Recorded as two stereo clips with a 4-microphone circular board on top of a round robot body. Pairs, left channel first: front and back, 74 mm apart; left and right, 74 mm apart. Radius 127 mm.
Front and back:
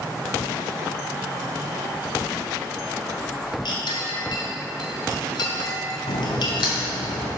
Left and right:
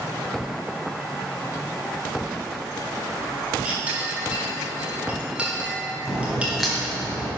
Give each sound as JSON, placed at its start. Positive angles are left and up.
{"t": 3.6, "sound": "a clink", "azimuth_deg": -15, "distance_m": 1.3}
{"t": 6.1, "sound": "a crack", "azimuth_deg": 0, "distance_m": 1.4}